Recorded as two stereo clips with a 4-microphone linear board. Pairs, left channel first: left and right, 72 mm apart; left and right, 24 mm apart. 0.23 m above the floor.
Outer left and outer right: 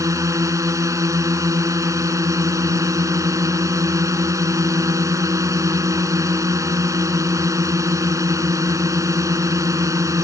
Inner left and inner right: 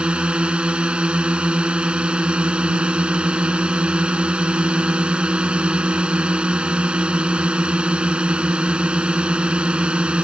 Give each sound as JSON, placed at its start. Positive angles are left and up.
{"t": 0.0, "sound": "a drone", "side_deg": -50}